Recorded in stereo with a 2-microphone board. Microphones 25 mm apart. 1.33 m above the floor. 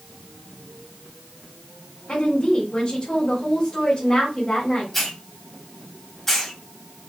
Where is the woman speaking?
35° left (ahead or behind), 3 m.